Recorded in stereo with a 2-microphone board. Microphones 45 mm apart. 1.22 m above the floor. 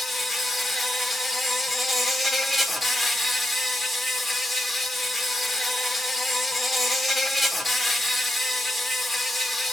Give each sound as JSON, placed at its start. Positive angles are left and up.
{"t": 0.0, "sound": "an insect", "side_deg": 0, "distance_m": 0.7}